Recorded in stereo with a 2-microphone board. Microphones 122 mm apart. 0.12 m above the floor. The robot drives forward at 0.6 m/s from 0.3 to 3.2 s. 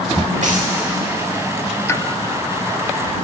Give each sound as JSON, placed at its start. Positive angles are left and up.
{"t": 0.4, "sound": "a dropped coin", "side_deg": -75, "distance_m": 3.5}
{"t": 1.9, "sound": "a pop", "side_deg": 25, "distance_m": 0.7}